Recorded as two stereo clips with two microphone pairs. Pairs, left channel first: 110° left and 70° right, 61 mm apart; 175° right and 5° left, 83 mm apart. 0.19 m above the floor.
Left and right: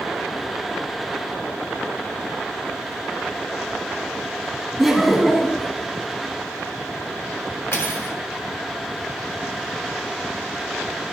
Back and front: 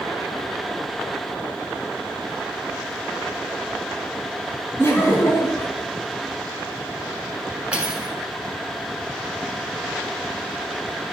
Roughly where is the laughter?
Behind.